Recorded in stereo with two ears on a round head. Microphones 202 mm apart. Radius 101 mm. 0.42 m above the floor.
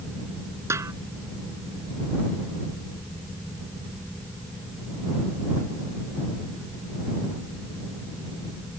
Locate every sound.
0.7 s a snare drum: 10° right (ahead or behind)